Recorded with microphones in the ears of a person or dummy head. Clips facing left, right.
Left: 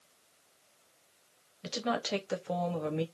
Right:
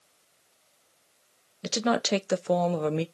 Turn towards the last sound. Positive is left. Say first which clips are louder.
# right 7 dB
turn(degrees=-60)  # may be behind; listen again after turning